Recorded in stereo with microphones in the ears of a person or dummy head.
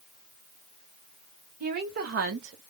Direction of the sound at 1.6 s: 50° right (ahead or behind).